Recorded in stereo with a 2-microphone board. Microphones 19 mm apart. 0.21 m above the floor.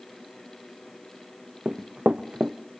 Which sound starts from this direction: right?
Running footsteps, at 1.6 s.